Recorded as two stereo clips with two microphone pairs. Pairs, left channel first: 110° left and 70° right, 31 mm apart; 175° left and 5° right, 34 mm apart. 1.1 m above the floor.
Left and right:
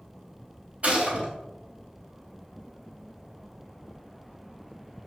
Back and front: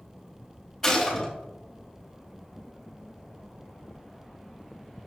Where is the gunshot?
105° right, 3 m.